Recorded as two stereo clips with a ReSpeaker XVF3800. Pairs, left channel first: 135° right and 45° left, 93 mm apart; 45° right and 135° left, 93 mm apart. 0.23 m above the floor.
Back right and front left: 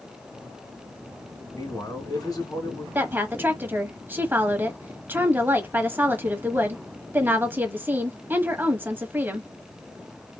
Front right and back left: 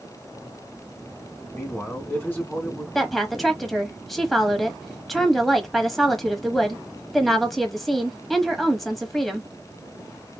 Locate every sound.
1.5 s a man speaking: 110° right, 2.5 m
3.0 s a woman speaking: 40° left, 1.1 m